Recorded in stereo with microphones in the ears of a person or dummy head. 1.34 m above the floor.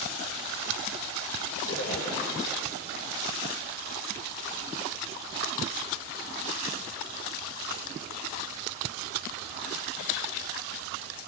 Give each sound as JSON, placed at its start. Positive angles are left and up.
{"t": 1.6, "sound": "a splash", "side_deg": 85, "distance_m": 8.5}